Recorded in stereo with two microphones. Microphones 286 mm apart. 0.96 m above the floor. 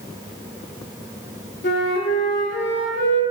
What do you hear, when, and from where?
1.6 s a flute: 40° left (ahead or behind), 0.7 m